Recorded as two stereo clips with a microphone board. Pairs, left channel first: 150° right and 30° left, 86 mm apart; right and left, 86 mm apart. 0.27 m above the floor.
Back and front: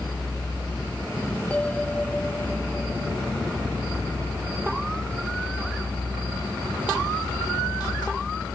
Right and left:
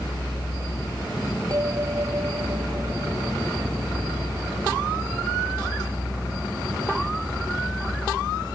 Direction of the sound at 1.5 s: 135° left.